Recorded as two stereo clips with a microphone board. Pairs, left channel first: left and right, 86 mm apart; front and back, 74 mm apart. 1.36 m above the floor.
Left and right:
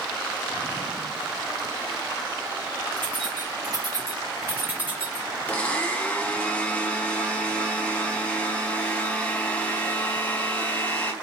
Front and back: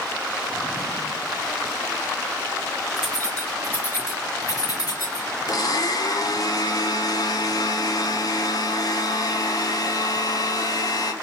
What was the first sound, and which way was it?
Keys jangling, 85° right.